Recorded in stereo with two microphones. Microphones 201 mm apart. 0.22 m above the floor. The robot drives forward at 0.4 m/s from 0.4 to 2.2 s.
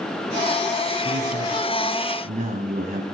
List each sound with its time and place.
1.0 s a man speaking: 40° right (ahead or behind), 1.7 m